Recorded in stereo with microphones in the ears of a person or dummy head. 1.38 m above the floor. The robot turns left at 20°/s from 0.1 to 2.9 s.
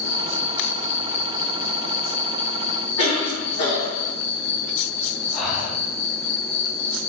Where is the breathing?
Centre (ahead or behind), 1.2 m.